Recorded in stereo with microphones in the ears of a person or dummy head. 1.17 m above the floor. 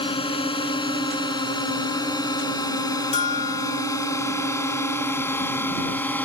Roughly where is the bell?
Left.